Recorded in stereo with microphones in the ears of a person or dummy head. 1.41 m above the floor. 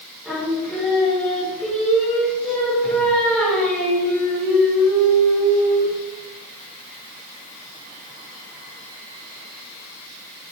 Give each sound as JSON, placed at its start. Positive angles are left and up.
{"t": 0.2, "sound": "singing", "side_deg": -5, "distance_m": 5.5}